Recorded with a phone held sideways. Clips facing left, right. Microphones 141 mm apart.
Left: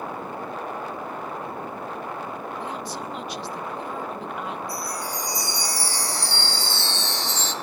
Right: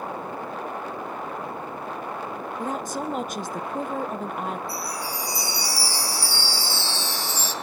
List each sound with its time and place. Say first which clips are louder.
2.6 s a woman speaking: right 3 dB; 45° right (ahead or behind), 0.8 m
4.7 s a chime: left 1 dB; 10° right (ahead or behind), 2 m